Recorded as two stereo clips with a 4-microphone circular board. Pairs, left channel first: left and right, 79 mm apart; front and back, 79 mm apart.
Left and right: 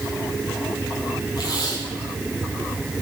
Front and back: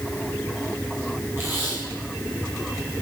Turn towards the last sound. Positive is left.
turn(degrees=120)